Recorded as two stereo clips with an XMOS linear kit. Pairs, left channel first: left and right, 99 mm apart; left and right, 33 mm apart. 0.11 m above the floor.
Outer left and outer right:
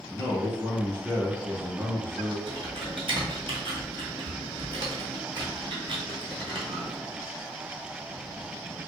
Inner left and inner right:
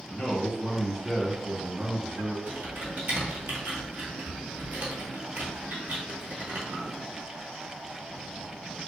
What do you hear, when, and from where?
0.1 s a man speaking: 15° left (ahead or behind), 1.1 m
2.5 s typing on a keyboard: 65° right (ahead or behind), 0.9 m